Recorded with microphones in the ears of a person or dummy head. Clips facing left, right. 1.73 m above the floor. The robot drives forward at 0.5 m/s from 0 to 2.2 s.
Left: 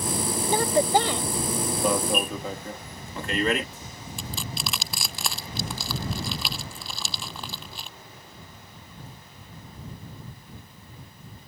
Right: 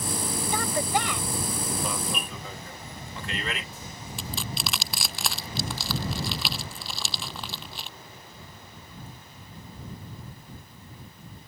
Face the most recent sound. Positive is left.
turn(degrees=0)  # may be behind; listen again after turning